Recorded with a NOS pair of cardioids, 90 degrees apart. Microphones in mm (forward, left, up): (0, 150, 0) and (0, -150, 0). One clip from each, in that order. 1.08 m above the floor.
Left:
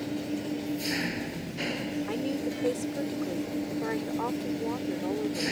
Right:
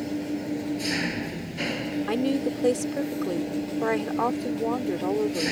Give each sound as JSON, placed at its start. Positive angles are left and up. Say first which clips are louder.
{"t": 0.0, "sound": "an engine running", "louder": "right 3 dB", "azimuth_deg": -25}
{"t": 2.1, "sound": "a woman speaking", "louder": "right 8 dB", "azimuth_deg": -50}